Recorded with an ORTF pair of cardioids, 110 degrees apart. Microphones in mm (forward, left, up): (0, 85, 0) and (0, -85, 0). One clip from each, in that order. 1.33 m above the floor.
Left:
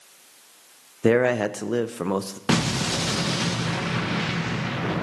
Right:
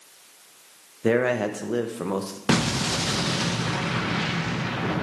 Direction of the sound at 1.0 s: 35° left.